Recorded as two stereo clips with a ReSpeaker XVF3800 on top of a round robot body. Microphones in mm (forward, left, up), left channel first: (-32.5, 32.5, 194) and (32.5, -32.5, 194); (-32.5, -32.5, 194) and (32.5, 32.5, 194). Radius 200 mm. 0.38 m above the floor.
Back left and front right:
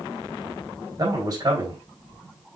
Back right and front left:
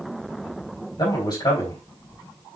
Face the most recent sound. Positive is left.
turn(degrees=-90)